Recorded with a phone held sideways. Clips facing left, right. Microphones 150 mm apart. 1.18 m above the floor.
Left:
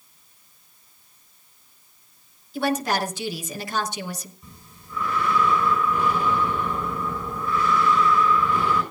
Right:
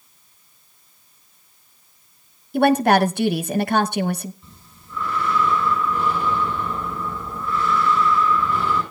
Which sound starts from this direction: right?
A woman speaking, at 2.5 s.